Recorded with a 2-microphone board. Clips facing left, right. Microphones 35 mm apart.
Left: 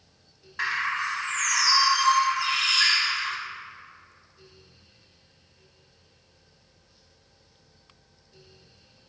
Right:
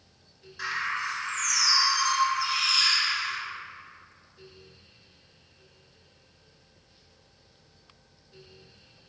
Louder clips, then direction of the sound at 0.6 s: Left 3 dB; 70° left (ahead or behind).